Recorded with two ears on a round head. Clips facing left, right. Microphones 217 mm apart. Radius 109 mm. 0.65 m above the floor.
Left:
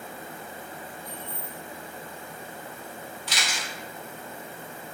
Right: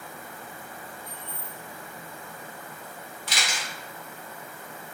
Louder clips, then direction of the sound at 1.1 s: Left 3 dB; 55° left (ahead or behind).